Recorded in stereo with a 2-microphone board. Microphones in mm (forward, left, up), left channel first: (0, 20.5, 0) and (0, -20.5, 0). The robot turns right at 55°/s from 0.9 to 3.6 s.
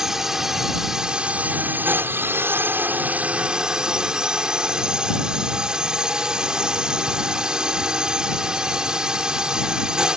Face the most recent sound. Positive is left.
turn(degrees=-20)